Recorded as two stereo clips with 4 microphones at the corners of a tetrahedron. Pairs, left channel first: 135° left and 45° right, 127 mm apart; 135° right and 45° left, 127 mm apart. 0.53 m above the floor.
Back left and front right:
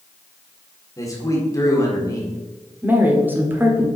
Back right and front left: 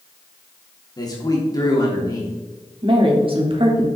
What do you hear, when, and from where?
1.0 s a man speaking: straight behind, 1.5 m
2.8 s a woman speaking: 25° left, 1.4 m